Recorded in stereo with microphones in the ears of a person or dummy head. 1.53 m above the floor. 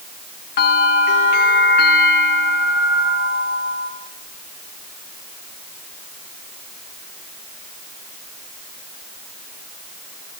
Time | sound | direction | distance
0.6 | a bell | 55° left (ahead or behind) | 2 m